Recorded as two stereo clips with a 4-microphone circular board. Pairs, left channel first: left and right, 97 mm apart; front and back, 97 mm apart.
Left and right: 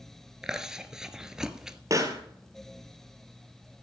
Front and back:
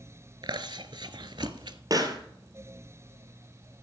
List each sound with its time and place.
0.4 s chewing: 170° right, 0.7 m
1.9 s a pop: 140° right, 1.6 m